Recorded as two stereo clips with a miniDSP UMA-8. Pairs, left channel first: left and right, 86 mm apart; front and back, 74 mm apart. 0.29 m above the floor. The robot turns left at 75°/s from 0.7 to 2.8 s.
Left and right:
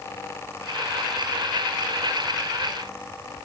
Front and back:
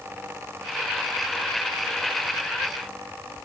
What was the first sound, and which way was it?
Only background noise.